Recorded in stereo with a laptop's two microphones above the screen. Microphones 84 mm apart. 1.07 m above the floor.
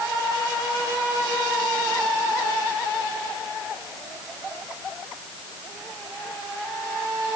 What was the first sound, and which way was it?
Only background noise.